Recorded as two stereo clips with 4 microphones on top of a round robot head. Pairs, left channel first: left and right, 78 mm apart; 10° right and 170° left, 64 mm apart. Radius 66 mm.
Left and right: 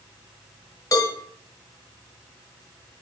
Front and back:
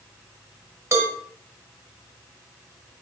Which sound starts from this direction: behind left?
A cowbell, at 0.9 s.